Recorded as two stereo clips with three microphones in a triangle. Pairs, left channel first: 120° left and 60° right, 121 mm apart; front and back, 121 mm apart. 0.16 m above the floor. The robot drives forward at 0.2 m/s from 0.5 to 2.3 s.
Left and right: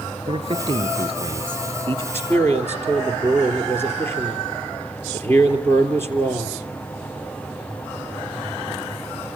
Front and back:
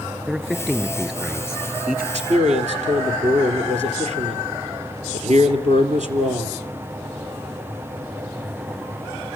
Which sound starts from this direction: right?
A man speaking, at 0.3 s.